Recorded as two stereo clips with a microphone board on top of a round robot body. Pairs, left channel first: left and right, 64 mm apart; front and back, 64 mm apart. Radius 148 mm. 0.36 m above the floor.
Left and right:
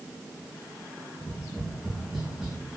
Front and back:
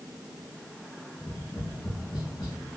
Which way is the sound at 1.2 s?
5° right.